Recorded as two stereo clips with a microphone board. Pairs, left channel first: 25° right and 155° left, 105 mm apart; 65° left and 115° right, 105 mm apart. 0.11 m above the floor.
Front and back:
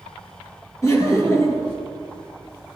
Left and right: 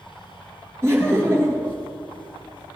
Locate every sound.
0.8 s laughter: 65° right, 2.5 m